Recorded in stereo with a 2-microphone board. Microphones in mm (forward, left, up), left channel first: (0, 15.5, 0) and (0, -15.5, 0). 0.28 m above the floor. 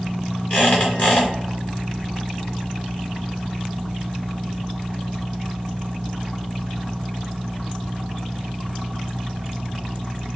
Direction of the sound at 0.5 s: 45° left (ahead or behind).